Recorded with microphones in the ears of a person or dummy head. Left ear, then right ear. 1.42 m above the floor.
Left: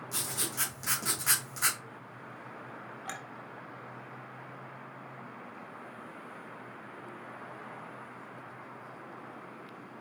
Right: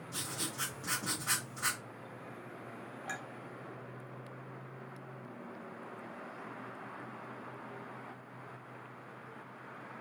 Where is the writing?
60° left (ahead or behind), 1.6 m.